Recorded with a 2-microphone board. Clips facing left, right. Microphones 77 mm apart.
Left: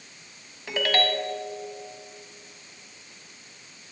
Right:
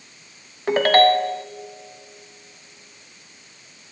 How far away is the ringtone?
About 0.7 m.